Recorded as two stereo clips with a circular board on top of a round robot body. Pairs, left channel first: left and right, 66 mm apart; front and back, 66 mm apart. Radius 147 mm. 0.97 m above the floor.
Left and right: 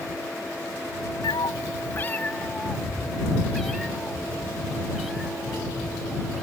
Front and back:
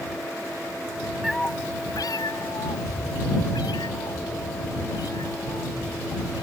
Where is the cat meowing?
95° left; by 6.4 s 5° right.